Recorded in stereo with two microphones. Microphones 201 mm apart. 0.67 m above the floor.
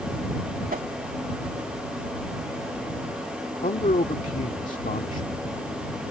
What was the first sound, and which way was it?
A whoosh, 45° right (ahead or behind).